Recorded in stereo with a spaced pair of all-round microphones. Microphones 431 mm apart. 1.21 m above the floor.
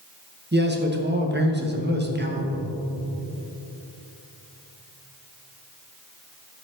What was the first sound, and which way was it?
A man speaking, 25° right (ahead or behind).